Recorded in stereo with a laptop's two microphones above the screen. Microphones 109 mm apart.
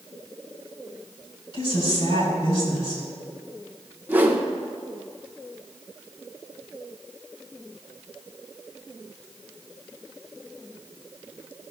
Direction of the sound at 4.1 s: 20° right (ahead or behind).